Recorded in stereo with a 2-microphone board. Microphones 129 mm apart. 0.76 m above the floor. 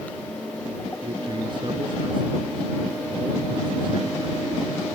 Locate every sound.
1.0 s a man speaking: 35° right (ahead or behind)